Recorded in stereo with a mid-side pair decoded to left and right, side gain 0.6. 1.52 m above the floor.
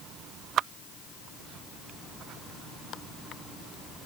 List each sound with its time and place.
Only background noise.